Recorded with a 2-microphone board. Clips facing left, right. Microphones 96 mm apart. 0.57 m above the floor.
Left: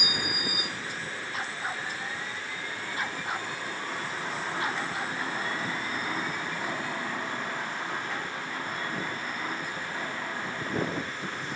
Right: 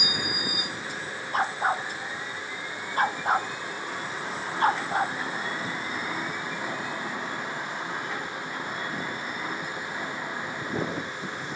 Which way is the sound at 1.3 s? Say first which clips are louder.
Right 11 dB; 50° right (ahead or behind).